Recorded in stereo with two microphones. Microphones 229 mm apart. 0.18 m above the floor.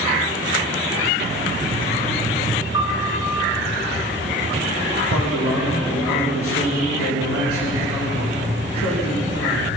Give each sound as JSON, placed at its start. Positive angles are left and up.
{"t": 2.7, "sound": "a piano", "side_deg": 75, "distance_m": 5.5}
{"t": 5.1, "sound": "a man speaking", "side_deg": 75, "distance_m": 9.5}